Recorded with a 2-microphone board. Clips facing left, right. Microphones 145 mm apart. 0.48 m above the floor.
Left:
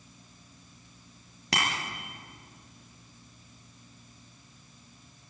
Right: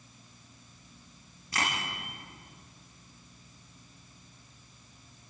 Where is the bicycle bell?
85° left, 8.5 m.